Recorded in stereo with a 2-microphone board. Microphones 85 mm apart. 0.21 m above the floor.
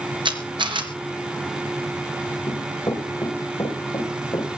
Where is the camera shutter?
70° right (ahead or behind), 3.5 m.